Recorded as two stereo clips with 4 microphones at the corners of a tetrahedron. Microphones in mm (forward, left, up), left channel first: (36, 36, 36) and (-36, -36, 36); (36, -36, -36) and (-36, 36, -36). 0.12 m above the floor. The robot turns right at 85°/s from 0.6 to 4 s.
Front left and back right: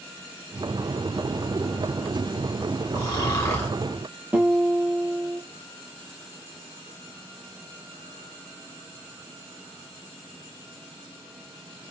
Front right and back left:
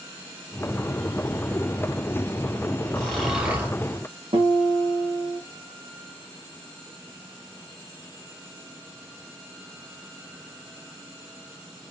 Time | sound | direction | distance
3.0 | snoring | 25° left | 1.6 m
4.3 | a guitar | 150° left | 1.1 m